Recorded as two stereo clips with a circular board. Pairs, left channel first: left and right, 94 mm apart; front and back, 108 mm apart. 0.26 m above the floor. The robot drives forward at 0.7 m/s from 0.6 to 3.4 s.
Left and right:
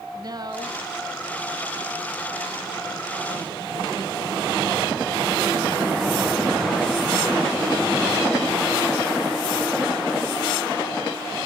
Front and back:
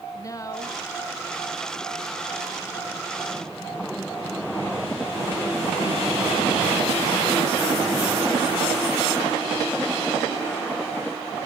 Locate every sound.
0.1 s a woman speaking: 55° right, 2 m; by 2.2 s 90° right, 1.8 m